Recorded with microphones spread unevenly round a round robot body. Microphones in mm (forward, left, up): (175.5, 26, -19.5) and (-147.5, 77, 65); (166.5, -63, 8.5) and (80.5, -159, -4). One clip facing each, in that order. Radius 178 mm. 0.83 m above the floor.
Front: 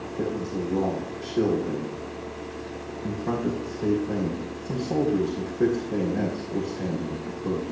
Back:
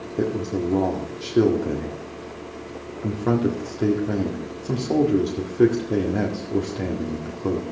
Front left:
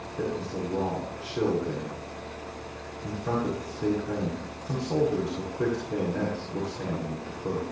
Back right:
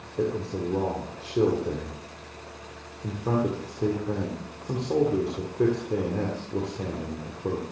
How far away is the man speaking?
About 2.0 m.